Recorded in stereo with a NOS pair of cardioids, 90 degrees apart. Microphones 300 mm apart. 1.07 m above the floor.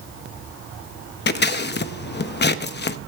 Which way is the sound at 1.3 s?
35° left.